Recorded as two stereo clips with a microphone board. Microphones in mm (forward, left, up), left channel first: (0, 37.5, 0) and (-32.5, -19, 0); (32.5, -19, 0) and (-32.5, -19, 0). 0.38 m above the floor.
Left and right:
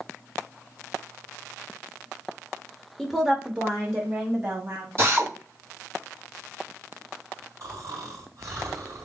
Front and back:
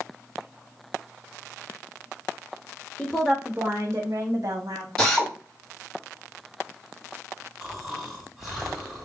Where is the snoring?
95° right, 3.5 m.